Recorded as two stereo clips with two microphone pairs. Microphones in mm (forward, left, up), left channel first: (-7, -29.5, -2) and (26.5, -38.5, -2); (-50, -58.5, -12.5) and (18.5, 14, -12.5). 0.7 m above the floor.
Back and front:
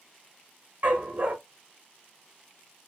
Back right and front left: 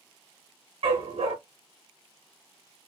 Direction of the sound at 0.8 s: 25° left.